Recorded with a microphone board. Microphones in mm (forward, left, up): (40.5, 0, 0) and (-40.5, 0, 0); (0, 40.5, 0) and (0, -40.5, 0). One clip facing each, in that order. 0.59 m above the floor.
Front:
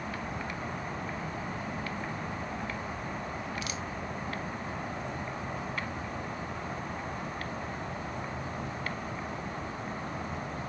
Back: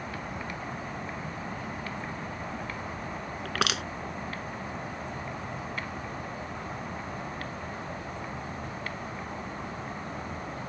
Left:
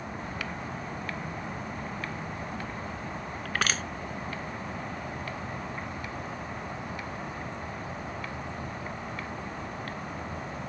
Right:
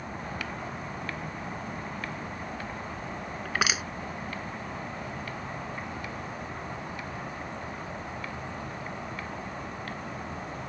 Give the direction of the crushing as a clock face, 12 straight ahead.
6 o'clock.